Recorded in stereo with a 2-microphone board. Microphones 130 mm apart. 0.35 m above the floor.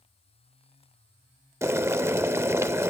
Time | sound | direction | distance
1.6 | boiling | 20° right (ahead or behind) | 0.6 m